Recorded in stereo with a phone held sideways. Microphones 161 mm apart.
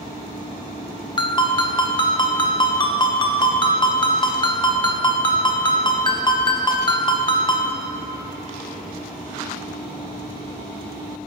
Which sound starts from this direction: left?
A ringtone, at 1.2 s.